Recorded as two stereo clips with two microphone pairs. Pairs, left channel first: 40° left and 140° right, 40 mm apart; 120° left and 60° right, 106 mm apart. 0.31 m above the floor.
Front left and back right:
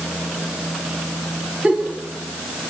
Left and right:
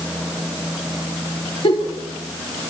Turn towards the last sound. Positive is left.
turn(degrees=155)